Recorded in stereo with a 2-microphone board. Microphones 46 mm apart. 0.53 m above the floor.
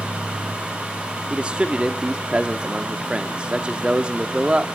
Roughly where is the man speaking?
Right.